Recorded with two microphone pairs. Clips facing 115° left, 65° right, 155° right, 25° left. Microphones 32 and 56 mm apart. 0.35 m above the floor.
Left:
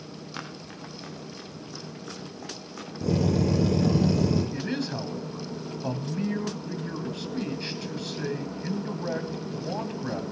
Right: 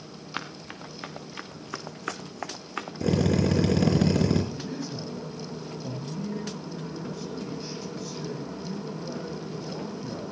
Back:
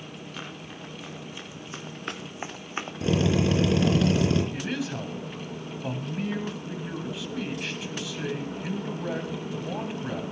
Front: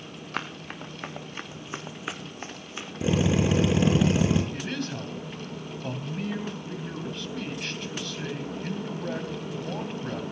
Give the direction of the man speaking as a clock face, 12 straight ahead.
8 o'clock.